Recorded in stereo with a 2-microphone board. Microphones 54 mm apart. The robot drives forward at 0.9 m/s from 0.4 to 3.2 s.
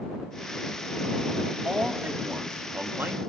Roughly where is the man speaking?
Right.